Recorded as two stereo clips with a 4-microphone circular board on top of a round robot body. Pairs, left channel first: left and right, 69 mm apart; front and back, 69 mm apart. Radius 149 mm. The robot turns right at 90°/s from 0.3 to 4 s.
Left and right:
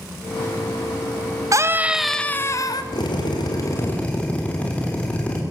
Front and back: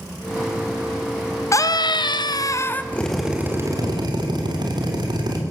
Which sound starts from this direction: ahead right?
A scream, at 1.5 s.